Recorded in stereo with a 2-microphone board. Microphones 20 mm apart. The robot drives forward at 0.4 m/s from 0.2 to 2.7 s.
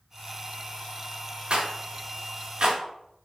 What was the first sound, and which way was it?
A rattle, 65° right (ahead or behind).